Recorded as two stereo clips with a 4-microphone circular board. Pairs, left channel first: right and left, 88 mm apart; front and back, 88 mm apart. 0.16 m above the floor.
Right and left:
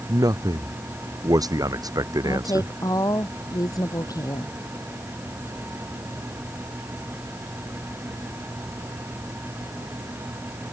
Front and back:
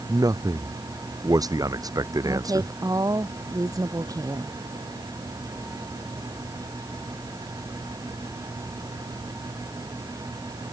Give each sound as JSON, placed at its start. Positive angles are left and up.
{"t": 0.1, "sound": "a man speaking", "azimuth_deg": 135}
{"t": 2.2, "sound": "a woman speaking", "azimuth_deg": -135}